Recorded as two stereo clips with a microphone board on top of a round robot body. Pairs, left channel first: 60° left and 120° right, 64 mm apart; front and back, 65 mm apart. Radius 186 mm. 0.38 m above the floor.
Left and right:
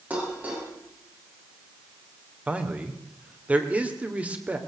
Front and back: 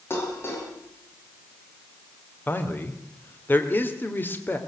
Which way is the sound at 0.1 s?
55° right.